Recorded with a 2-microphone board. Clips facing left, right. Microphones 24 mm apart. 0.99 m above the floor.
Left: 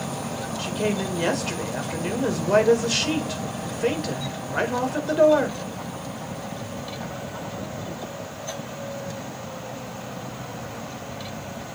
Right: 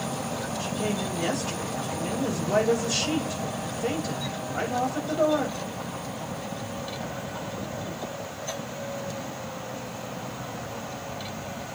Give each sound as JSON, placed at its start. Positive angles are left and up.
{"t": 0.6, "sound": "a woman speaking", "side_deg": 60, "distance_m": 5.0}